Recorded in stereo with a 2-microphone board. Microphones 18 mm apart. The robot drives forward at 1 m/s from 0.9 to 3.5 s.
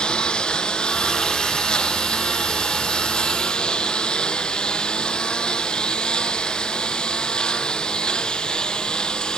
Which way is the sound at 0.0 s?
65° left (ahead or behind).